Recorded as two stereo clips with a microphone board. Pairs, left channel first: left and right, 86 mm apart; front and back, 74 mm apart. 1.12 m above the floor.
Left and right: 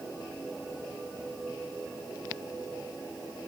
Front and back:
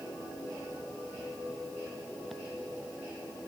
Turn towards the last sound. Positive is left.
No sound to turn to.